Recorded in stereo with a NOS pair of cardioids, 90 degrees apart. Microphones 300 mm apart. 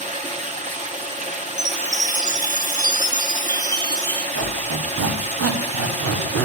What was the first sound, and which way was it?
Running water, 25° right.